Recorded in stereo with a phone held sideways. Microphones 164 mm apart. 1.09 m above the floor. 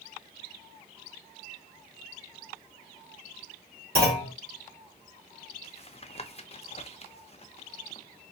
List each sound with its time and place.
4.0 s a clunk: 70° right (ahead or behind), 2.5 m
5.6 s tapping: 40° left (ahead or behind), 0.5 m